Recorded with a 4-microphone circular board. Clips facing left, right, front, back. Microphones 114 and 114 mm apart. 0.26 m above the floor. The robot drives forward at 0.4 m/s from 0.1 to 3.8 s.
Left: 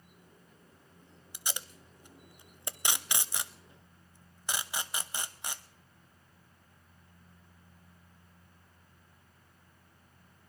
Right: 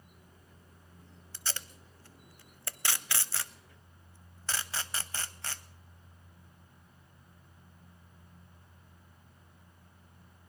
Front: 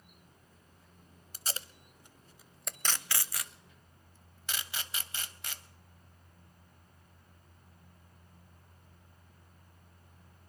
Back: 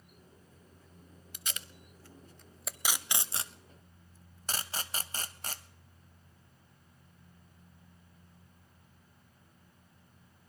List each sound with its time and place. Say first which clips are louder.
1.3 s tape being pulled: left 1 dB, front 3 dB; 20° left, 0.8 m; by 5.6 s 155° left, 0.8 m